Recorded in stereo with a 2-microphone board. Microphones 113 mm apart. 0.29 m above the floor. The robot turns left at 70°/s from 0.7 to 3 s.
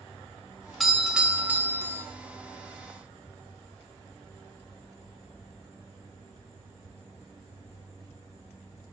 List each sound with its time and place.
0.8 s a doorbell: centre (ahead or behind), 1.3 m; by 2.0 s 20° right (ahead or behind), 1.3 m